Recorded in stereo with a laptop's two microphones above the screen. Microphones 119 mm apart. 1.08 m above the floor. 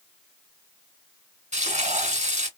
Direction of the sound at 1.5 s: 75° right (ahead or behind).